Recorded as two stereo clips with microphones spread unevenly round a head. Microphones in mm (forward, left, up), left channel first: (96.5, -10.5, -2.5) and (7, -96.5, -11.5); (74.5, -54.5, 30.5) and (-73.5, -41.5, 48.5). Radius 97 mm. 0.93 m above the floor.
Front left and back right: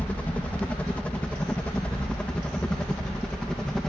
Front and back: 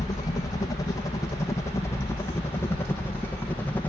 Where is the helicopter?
25° right; by 3.9 s 35° right.